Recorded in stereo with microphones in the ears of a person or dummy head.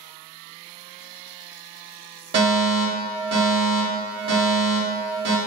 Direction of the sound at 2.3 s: 35° right (ahead or behind).